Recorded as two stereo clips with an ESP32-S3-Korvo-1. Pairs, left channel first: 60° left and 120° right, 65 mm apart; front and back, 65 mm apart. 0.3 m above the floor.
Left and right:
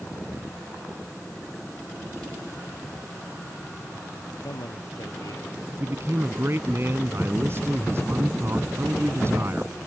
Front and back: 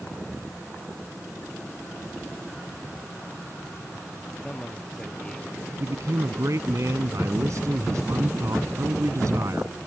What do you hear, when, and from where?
4.4 s a man speaking: 80° left
5.8 s a man speaking: 160° right